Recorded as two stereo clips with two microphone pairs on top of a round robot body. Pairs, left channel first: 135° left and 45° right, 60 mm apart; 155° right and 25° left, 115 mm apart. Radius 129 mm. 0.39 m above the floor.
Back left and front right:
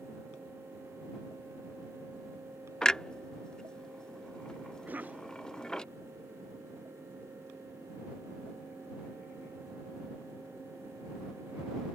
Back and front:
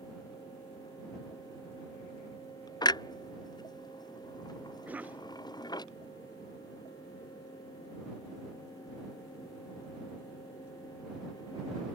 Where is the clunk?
140° right.